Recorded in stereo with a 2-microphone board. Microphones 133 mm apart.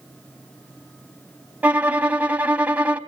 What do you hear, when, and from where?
1.6 s a violin: 10° right (ahead or behind), 0.7 m